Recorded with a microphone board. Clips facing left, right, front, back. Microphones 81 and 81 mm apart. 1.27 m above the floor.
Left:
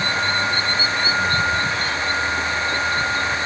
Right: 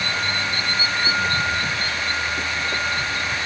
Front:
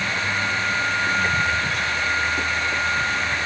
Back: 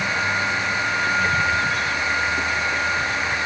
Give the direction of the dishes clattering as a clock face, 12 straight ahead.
No dishes clattering in this recording.